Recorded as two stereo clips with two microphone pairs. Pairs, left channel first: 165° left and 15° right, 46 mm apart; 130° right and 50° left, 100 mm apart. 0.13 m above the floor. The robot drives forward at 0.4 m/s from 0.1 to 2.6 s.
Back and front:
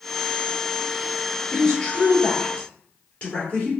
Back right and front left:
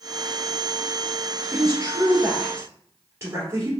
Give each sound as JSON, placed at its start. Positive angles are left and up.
{"t": 1.5, "sound": "a woman speaking", "azimuth_deg": 95, "distance_m": 2.0}